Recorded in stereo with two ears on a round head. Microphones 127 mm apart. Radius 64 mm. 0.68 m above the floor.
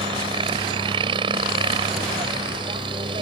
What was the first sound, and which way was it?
A helicopter, 35° right (ahead or behind).